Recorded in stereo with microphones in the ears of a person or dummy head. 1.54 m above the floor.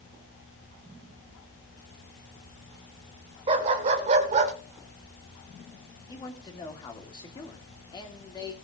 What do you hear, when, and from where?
3.5 s a dog barking: 35° right (ahead or behind), 1.9 m; by 4.5 s 40° right (ahead or behind), 1.6 m
6.1 s a man speaking: 25° left (ahead or behind), 2.5 m